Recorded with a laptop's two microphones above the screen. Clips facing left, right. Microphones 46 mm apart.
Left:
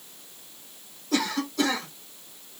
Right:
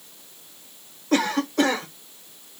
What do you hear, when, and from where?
1.1 s a cough: 45° right (ahead or behind), 0.9 m